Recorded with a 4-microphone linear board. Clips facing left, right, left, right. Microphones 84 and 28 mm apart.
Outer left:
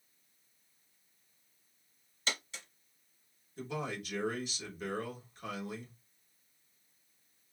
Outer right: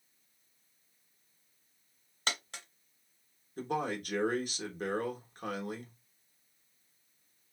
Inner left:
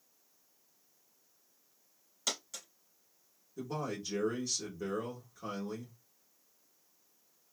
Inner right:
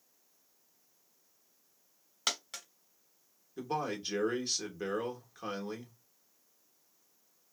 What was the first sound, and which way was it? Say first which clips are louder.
A dropped coin: outer right 2 dB, inner right 3 dB; 55° right (ahead or behind).